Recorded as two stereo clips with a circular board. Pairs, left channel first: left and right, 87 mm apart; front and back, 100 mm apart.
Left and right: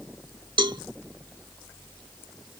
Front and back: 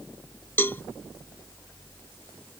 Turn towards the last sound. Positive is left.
turn(degrees=-65)